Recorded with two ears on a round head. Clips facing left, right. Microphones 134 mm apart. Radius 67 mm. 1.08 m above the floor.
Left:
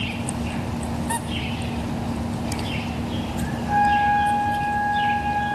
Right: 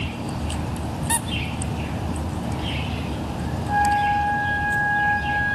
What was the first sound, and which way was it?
A squeak, 35° right (ahead or behind).